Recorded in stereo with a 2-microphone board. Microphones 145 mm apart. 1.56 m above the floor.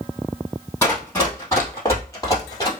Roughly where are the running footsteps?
Centre.